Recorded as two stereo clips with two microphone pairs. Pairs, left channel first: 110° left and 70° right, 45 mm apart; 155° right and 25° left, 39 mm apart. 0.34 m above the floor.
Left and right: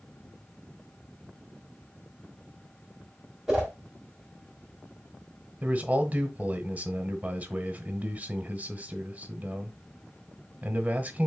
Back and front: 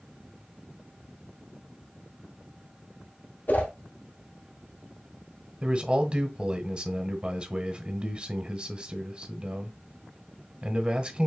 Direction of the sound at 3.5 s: 155° right.